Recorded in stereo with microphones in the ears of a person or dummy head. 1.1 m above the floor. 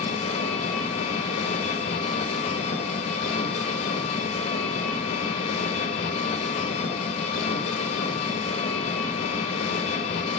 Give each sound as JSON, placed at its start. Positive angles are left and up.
{"t": 0.0, "sound": "an engine running", "side_deg": 40, "distance_m": 1.0}